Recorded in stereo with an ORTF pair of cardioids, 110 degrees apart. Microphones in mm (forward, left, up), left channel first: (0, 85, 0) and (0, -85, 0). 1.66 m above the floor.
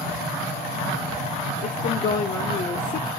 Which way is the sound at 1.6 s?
45° left.